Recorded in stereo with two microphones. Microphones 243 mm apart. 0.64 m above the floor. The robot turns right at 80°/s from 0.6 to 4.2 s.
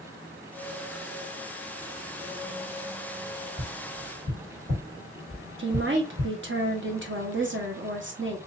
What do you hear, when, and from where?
3.6 s tapping: 10° left (ahead or behind), 2 m; by 6.3 s 35° right (ahead or behind), 2 m
5.6 s a woman speaking: 50° right (ahead or behind), 0.9 m